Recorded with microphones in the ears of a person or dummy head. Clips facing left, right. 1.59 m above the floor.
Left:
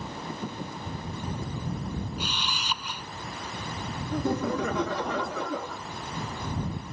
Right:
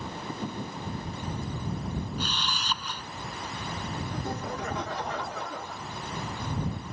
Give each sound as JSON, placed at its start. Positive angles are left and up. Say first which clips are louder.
{"t": 2.2, "sound": "a camera shutter", "louder": "even", "side_deg": 10}
{"t": 4.1, "sound": "laughter", "louder": "left 11 dB", "side_deg": 75}